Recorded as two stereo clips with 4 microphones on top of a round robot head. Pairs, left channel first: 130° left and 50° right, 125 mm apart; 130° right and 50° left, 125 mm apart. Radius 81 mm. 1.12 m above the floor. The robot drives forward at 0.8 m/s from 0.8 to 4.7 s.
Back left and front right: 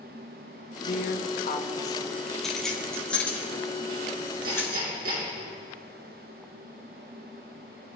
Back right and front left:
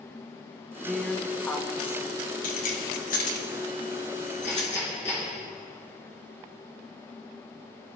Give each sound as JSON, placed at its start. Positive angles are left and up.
{"t": 0.9, "sound": "a woman speaking", "azimuth_deg": 145, "distance_m": 1.1}
{"t": 2.4, "sound": "keys jangling", "azimuth_deg": -145, "distance_m": 2.0}
{"t": 4.4, "sound": "hammering", "azimuth_deg": -55, "distance_m": 5.0}